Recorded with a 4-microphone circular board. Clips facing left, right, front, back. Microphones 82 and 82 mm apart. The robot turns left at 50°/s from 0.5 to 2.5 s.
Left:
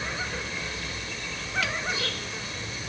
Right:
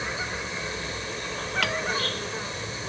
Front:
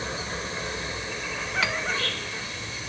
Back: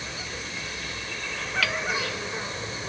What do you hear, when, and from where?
0.0 s an insect: 30° right; by 2.9 s 130° right
1.6 s hammering: 65° right; by 1.8 s 70° right